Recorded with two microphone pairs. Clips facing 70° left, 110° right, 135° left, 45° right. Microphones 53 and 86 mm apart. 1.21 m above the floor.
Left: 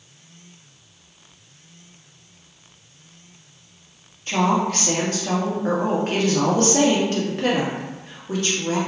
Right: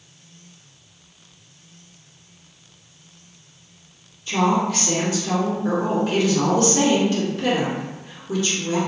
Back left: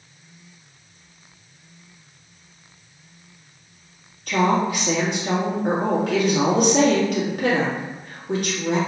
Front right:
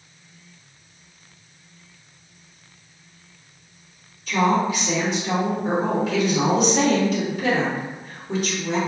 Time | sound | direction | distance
4.3 | a woman speaking | 110° left | 1.7 m